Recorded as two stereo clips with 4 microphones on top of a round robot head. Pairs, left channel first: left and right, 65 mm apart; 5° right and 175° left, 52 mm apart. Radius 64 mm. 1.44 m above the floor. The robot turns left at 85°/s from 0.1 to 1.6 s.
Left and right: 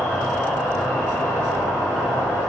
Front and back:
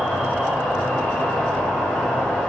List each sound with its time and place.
0.0 s an insect: 155° right, 1.7 m; by 2.5 s 75° left, 1.7 m